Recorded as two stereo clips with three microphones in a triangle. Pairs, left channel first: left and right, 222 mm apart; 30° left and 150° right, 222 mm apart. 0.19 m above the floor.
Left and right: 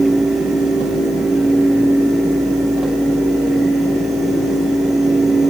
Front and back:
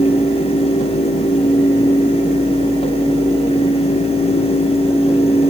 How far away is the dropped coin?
No dropped coin in this recording.